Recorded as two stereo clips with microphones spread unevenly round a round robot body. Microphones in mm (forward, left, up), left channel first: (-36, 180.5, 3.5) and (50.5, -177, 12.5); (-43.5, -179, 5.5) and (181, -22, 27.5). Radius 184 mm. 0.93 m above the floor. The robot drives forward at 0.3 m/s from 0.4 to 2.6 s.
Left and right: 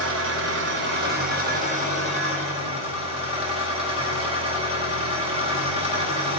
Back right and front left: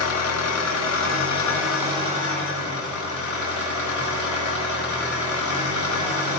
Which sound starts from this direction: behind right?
An engine running, at 0.0 s.